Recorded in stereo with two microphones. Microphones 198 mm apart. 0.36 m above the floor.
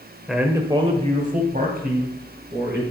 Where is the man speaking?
Centre (ahead or behind), 1.2 m; by 2.8 s 60° right (ahead or behind), 3 m.